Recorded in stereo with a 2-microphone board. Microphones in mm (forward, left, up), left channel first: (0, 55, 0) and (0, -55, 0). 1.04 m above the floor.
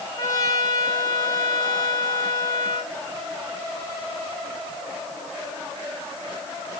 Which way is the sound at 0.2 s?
35° left (ahead or behind).